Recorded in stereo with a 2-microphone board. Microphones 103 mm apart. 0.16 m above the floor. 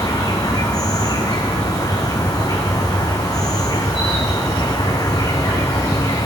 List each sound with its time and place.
0.0 s an insect: 35° left (ahead or behind), 1.0 m